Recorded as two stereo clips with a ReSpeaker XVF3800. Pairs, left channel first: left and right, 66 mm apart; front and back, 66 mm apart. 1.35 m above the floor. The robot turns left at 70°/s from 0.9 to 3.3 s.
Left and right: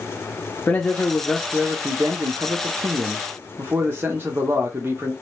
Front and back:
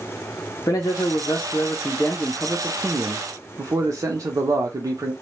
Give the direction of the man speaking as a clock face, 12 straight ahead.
11 o'clock.